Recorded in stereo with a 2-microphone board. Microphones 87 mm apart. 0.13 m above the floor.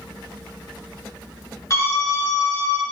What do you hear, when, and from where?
1.7 s a scream: 40° left (ahead or behind), 1.8 m; by 2.8 s 45° left (ahead or behind), 2 m